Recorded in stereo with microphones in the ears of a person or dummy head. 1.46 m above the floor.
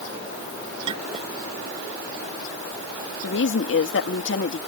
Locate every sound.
0.9 s a clink: 25° right (ahead or behind)
3.2 s a woman speaking: 80° left